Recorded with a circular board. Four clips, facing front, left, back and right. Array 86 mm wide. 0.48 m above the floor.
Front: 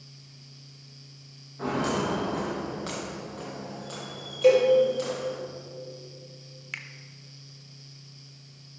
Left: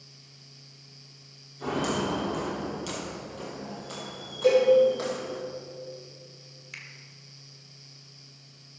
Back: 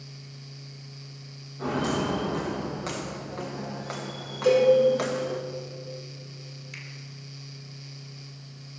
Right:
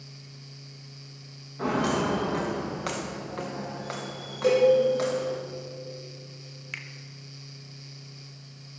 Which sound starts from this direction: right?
Footsteps, at 1.6 s.